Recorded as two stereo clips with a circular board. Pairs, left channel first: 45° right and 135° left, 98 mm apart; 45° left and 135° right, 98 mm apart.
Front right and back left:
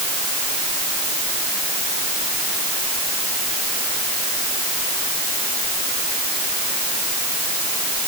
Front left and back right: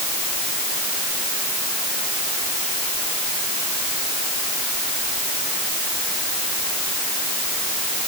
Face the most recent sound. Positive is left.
No sound to turn to.